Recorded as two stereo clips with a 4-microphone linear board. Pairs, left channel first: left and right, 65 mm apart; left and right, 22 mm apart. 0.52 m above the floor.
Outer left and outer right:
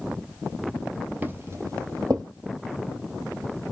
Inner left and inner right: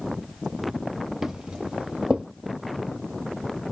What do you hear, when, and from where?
1.2 s footsteps: 25° right (ahead or behind), 0.8 m; by 2.2 s 70° right (ahead or behind), 1.3 m